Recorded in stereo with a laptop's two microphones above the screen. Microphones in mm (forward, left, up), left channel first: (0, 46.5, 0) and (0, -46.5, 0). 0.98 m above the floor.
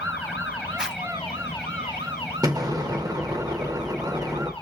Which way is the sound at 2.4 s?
45° right (ahead or behind).